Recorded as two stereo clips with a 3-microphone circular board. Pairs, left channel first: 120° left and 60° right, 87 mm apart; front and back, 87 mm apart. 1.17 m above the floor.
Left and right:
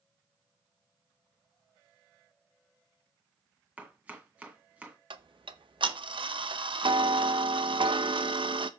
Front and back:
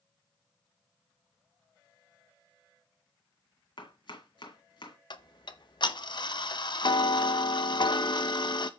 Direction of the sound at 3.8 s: 15° left.